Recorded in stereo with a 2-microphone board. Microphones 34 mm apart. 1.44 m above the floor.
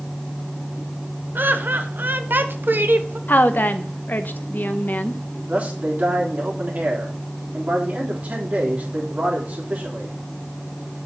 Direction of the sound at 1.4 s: 75° right (ahead or behind).